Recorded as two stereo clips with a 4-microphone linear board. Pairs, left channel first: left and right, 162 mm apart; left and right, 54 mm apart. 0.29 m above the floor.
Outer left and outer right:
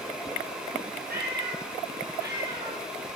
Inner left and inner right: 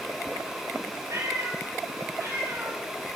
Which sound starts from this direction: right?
A cat meowing, at 1.1 s.